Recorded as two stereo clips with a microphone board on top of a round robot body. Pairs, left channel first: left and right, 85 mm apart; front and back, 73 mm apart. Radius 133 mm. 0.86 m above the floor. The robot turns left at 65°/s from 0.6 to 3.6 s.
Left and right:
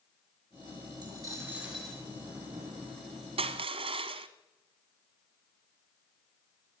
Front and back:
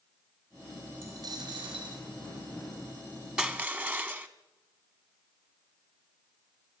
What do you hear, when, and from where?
1.0 s a dropped coin: 125° right, 4 m; by 2.0 s 170° left, 4 m
3.4 s crushing: 100° right, 0.9 m; by 4.3 s 115° right, 0.9 m